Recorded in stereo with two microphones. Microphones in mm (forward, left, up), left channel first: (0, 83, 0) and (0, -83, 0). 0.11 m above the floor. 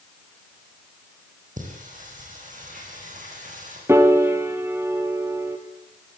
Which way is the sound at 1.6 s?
50° right (ahead or behind).